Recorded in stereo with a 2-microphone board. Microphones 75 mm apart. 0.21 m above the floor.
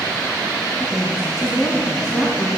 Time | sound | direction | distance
0.8 | a woman speaking | 5° left (ahead or behind) | 1.5 m